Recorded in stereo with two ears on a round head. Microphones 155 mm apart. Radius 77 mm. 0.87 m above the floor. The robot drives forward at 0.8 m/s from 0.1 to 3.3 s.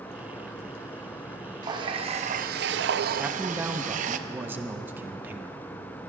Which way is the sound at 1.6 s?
25° right (ahead or behind).